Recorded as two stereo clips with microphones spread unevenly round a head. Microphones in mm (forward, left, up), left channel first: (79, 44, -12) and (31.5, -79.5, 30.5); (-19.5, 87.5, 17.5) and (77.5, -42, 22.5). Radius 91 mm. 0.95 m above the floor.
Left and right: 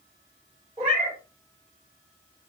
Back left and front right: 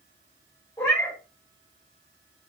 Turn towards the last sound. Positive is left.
turn(degrees=-150)